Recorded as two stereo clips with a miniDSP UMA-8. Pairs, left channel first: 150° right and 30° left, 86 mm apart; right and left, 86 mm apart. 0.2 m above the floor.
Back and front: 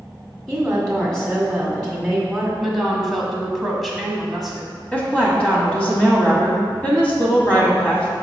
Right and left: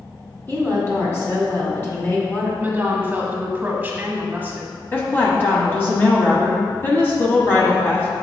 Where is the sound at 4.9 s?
100° right, 1.3 m.